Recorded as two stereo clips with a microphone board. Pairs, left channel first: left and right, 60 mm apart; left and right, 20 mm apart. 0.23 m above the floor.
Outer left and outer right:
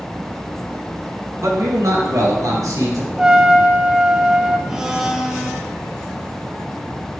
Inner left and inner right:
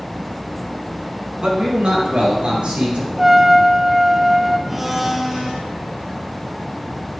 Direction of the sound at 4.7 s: 10° right (ahead or behind).